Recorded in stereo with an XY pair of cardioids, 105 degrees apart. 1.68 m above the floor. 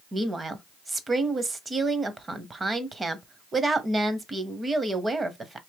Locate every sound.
0.1 s a woman speaking: 30° right, 0.8 m